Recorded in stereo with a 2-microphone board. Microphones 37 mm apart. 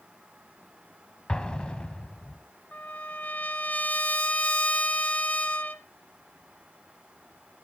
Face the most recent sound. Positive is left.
turn(degrees=40)  # may be behind; listen again after turning